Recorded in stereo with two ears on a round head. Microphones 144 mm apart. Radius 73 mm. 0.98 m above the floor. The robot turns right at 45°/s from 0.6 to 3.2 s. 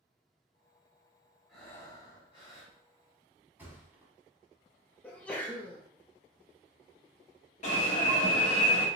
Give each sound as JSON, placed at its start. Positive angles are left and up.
{"t": 1.5, "sound": "breathing", "azimuth_deg": 0, "distance_m": 1.5}
{"t": 3.6, "sound": "a thud", "side_deg": -15, "distance_m": 1.0}
{"t": 5.0, "sound": "a sneeze", "side_deg": 10, "distance_m": 0.5}
{"t": 7.6, "sound": "an alarm", "side_deg": 50, "distance_m": 1.2}